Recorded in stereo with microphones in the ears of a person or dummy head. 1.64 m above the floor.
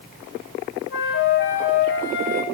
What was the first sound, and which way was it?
A flute, 65° left (ahead or behind).